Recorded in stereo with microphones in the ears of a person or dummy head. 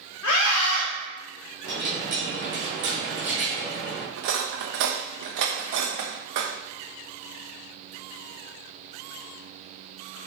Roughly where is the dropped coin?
Right.